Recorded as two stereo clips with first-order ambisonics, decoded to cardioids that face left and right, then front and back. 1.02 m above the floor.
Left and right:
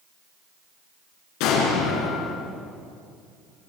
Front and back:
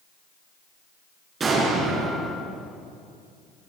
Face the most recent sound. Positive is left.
turn(degrees=110)